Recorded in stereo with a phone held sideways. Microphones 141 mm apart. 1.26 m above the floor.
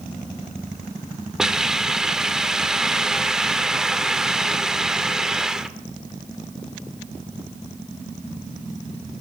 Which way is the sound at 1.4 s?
5° right (ahead or behind).